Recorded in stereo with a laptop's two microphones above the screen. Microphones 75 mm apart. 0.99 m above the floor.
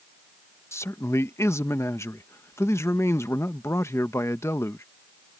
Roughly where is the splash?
I don't hear a splash.